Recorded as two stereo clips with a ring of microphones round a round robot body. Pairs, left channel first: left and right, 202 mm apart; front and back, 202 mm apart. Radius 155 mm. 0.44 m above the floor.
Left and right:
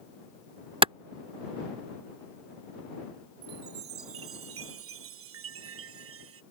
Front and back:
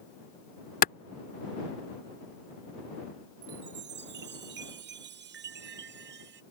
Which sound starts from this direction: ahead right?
A clap, at 0.8 s.